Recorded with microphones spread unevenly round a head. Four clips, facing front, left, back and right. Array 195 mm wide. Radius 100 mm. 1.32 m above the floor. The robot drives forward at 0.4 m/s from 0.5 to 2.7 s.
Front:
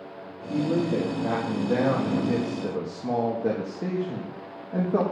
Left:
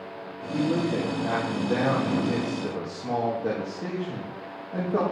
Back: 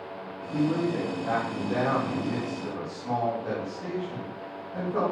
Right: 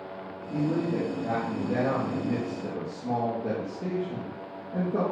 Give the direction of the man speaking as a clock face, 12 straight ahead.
12 o'clock.